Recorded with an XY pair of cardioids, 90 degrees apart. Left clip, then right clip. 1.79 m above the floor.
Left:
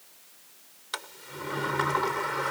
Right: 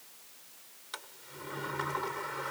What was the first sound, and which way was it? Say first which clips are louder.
A sliding door: left 8 dB; 60° left.